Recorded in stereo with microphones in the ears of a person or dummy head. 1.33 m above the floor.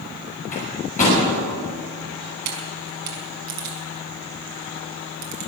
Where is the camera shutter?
60° right (ahead or behind), 4 m.